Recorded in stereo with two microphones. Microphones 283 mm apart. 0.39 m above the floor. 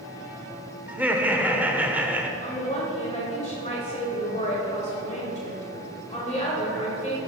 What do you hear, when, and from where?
0.9 s laughter: 5° right (ahead or behind), 0.8 m
2.4 s a woman speaking: 25° left (ahead or behind), 1.8 m